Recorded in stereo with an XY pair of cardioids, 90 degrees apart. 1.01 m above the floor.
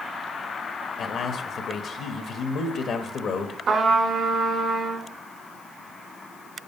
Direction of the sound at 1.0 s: 65° left.